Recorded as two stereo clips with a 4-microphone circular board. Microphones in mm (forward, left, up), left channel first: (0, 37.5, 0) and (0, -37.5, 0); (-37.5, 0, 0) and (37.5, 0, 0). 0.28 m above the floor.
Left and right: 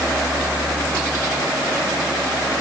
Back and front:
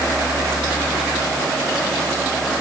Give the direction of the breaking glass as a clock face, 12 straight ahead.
I don't hear breaking glass.